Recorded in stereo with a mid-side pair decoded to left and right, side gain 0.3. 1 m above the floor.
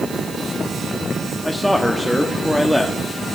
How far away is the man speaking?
About 1.7 m.